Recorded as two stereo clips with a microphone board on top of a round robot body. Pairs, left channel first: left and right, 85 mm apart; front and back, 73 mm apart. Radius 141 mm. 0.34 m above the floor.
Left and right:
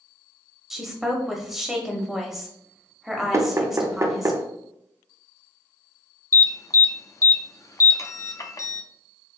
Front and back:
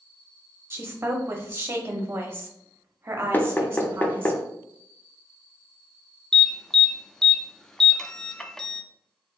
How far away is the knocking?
About 0.6 m.